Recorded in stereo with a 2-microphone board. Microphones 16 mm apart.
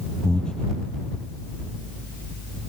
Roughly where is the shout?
I don't hear a shout.